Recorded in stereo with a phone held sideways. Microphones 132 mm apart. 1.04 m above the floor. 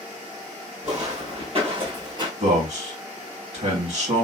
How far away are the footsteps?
About 1.8 m.